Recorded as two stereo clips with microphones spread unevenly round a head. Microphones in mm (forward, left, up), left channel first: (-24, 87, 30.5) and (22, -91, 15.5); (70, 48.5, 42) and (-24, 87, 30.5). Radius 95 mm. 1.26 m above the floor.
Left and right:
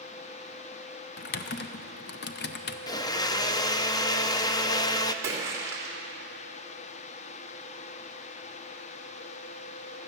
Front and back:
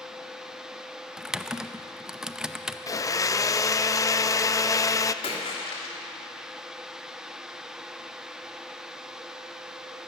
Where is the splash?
Straight ahead, 3 m.